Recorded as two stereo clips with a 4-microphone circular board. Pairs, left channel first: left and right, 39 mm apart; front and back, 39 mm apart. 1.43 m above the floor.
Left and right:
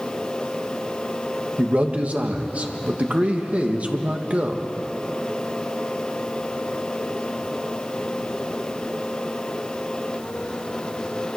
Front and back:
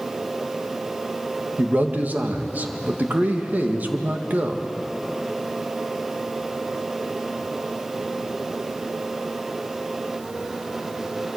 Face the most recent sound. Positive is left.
turn(degrees=-140)